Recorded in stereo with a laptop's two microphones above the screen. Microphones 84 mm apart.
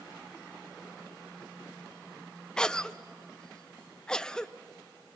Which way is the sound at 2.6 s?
10° left (ahead or behind).